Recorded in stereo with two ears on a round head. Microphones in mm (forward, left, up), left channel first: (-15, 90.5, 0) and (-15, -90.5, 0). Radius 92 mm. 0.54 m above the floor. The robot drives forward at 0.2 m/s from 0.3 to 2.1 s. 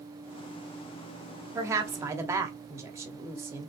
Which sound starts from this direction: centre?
A woman speaking, at 1.6 s.